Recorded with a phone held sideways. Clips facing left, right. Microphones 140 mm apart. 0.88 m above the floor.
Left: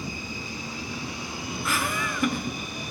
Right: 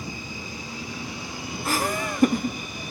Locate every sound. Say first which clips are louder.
1.6 s laughter: right 4 dB; 40° right (ahead or behind), 1.2 m